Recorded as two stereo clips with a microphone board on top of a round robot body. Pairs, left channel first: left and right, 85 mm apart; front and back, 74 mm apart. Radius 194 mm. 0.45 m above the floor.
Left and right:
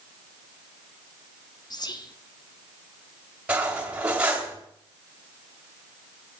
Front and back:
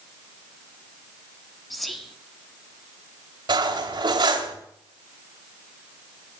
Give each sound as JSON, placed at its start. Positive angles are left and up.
{"t": 1.7, "sound": "whispering", "azimuth_deg": 85, "distance_m": 2.0}
{"t": 3.5, "sound": "cutlery clinking", "azimuth_deg": -165, "distance_m": 2.5}